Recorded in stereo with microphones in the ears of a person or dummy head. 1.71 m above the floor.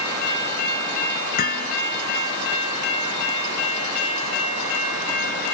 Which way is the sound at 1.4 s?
50° left (ahead or behind).